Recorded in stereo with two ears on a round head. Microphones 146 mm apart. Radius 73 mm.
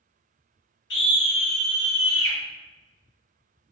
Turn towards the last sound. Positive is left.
turn(degrees=75)  # may be behind; listen again after turning